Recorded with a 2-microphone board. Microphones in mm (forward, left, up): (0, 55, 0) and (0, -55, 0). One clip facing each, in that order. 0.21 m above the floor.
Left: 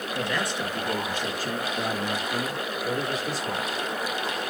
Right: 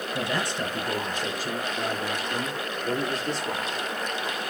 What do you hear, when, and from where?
0.1 s a man speaking: 30° right (ahead or behind), 3.5 m; by 3.7 s 5° left (ahead or behind), 6 m